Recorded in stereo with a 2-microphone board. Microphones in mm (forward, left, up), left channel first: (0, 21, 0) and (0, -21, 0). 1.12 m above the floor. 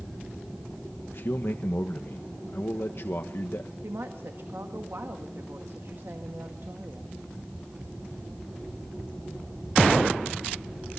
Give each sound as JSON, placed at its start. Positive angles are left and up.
{"t": 1.1, "sound": "a man speaking", "side_deg": 60, "distance_m": 1.2}
{"t": 3.8, "sound": "a woman speaking", "side_deg": -75, "distance_m": 1.8}